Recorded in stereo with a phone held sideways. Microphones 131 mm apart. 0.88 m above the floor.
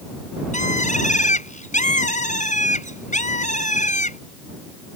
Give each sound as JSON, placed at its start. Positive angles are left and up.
{"t": 0.5, "sound": "a bird", "side_deg": 70}